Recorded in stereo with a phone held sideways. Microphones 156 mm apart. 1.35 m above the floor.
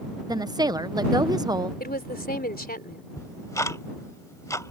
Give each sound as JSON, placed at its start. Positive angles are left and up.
{"t": 0.3, "sound": "a woman speaking", "side_deg": -25}
{"t": 1.8, "sound": "a woman speaking", "side_deg": 80}
{"t": 3.2, "sound": "ticking", "side_deg": 20}